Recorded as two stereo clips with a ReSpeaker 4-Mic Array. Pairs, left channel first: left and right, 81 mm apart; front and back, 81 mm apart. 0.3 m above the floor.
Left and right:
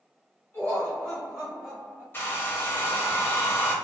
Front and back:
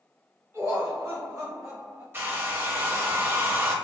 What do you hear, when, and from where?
0.5 s laughter: 140° left, 1.4 m; by 2.0 s 150° right, 1.6 m
2.1 s a hair dryer: 135° left, 0.6 m